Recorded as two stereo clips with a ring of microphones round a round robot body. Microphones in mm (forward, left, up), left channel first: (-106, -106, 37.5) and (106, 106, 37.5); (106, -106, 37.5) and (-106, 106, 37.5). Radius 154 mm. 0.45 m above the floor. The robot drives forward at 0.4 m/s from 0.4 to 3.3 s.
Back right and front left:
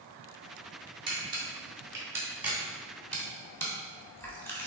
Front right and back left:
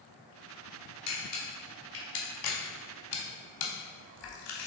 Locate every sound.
1.1 s a camera shutter: 30° right, 1.8 m; by 4.7 s 50° right, 1.1 m